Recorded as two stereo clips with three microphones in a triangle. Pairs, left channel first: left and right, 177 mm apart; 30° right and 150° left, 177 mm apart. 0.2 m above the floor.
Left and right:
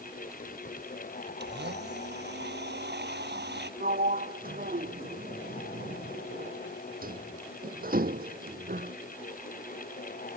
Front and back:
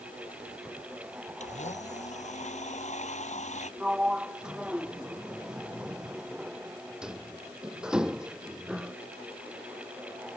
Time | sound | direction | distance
1.4 | a blender | 75° right | ?
3.8 | a sliding door | 125° right | ?